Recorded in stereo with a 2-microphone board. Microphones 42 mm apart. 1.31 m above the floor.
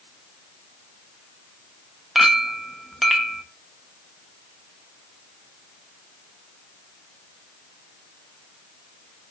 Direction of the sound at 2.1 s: Centre (ahead or behind).